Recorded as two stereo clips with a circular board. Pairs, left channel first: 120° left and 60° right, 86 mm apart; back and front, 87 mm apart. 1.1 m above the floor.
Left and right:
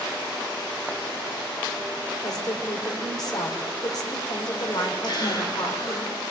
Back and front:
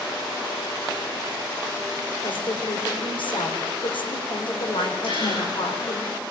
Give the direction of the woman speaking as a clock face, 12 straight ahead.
7 o'clock.